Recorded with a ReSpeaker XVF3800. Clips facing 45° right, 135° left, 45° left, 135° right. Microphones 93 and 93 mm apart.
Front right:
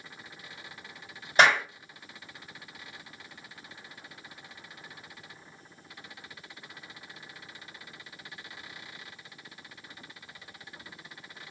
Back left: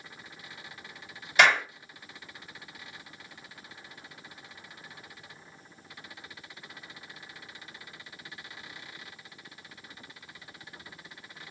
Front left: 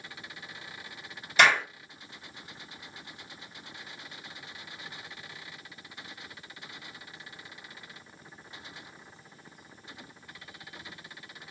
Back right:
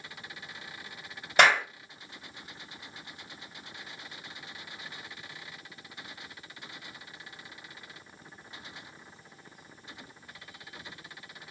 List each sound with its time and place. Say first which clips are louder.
1.4 s a clap: front right 1 dB, back right 1 dB; 100° right, 2 m